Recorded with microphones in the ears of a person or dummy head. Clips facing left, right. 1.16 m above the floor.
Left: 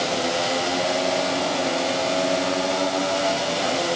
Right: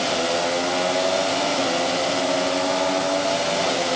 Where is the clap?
No clap in this recording.